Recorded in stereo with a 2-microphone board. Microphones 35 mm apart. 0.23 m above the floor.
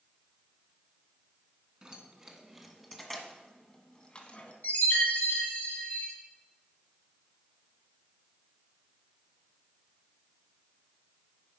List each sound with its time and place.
1.8 s keys jangling: 20° right (ahead or behind), 1.8 m; by 4.5 s 40° left (ahead or behind), 1.5 m
4.6 s a chime: 55° left (ahead or behind), 4.5 m